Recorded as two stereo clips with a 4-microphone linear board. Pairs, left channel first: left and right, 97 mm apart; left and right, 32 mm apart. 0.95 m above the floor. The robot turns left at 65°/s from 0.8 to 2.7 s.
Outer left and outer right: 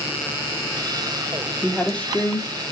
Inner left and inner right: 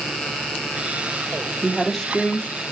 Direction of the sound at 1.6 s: 170° right.